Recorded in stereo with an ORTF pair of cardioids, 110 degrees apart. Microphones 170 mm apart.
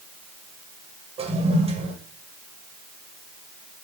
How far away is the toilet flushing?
About 9.5 m.